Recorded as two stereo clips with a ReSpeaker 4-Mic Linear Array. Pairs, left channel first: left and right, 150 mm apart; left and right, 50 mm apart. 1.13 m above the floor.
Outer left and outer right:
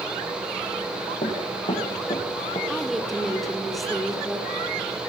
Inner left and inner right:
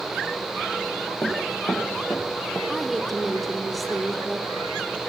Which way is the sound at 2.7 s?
Centre (ahead or behind).